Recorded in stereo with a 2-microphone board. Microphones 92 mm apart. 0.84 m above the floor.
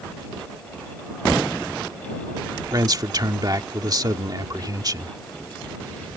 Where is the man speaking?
45° right (ahead or behind).